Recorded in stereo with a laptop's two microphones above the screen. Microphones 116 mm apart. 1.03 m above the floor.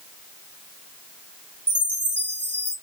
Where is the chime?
15° left (ahead or behind), 1.1 m.